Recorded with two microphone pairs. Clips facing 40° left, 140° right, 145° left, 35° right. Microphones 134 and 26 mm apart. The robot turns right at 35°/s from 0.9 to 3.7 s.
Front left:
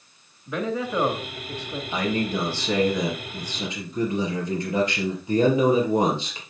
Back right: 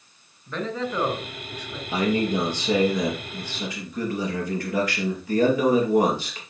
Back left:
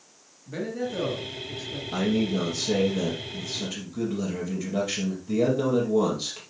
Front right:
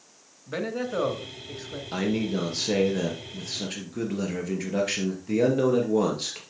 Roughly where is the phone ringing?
No phone ringing in this recording.